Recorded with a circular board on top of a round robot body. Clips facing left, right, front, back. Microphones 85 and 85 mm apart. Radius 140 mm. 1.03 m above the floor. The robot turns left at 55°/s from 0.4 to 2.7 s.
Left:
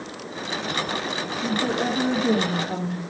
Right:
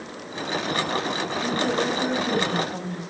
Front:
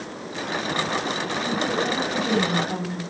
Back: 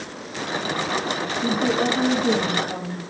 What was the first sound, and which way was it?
A woman speaking, 160° left.